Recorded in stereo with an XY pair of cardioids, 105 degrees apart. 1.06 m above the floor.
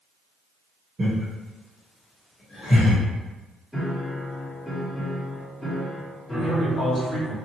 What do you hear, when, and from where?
1.0 s laughter: 35° right, 1.1 m; by 3.0 s 45° left, 1.7 m
3.7 s a piano: 5° left, 1.2 m
6.3 s a man speaking: 45° left, 1.6 m